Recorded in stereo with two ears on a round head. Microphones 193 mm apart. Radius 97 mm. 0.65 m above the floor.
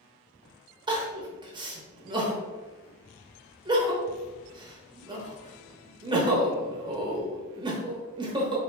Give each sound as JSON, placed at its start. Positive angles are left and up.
{"t": 0.9, "sound": "crying", "side_deg": -20, "distance_m": 0.9}